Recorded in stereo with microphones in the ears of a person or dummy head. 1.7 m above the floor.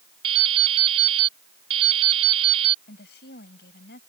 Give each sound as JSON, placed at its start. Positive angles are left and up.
{"t": 0.2, "sound": "dripping", "side_deg": -35}
{"t": 2.9, "sound": "a woman speaking", "side_deg": 60}